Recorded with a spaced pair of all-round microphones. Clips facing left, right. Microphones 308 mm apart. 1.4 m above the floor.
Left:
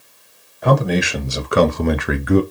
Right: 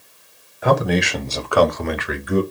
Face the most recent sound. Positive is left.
turn(degrees=75)  # may be behind; listen again after turning